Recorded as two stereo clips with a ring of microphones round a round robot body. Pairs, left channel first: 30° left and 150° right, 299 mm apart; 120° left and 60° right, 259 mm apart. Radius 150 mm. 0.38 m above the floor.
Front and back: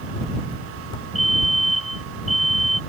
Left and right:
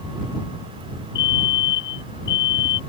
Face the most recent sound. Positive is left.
turn(degrees=120)